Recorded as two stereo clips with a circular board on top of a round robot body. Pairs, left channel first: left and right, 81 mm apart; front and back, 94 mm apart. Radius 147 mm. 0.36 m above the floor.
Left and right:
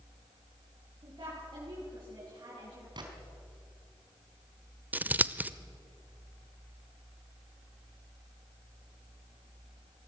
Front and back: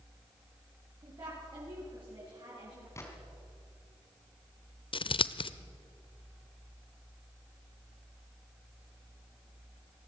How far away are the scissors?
About 0.8 m.